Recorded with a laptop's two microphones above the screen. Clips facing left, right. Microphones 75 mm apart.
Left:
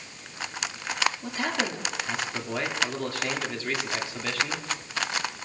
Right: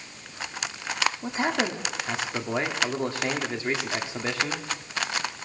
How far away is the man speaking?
About 2 m.